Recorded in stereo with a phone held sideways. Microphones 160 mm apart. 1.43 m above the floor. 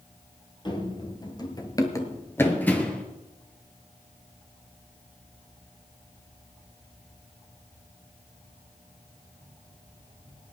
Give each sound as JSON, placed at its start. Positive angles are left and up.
{"t": 0.7, "sound": "running footsteps", "side_deg": 30, "distance_m": 1.8}